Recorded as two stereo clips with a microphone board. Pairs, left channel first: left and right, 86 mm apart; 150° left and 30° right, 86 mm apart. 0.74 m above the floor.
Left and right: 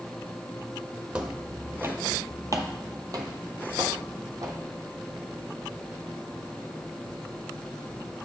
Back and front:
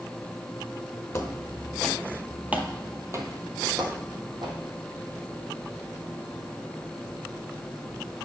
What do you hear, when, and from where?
1.1 s footsteps: 160° right, 1.1 m; by 4.6 s 45° right, 1.8 m